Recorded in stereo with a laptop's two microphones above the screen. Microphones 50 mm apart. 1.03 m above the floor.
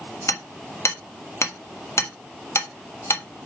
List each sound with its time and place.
0.3 s hammering: 75° left (ahead or behind), 1.2 m